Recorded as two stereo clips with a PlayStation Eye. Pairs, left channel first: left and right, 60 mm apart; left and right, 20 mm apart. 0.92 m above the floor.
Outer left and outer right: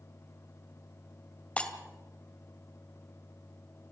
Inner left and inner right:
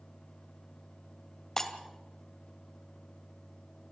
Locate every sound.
1.6 s breaking glass: 20° left (ahead or behind), 2 m